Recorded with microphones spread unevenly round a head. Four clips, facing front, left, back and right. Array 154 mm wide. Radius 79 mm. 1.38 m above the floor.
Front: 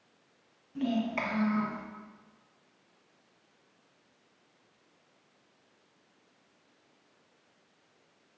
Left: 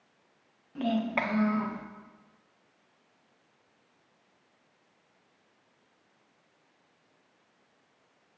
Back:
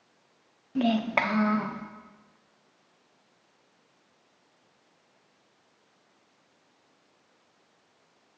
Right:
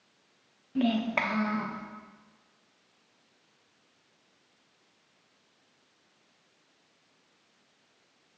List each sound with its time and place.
0.8 s a child speaking: 150° right, 0.9 m; by 1.8 s 155° left, 1.0 m